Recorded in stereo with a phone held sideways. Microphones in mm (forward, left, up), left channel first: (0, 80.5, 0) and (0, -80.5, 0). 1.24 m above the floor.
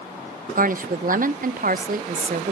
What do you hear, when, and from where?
0.6 s a woman speaking: 60° right (ahead or behind), 0.5 m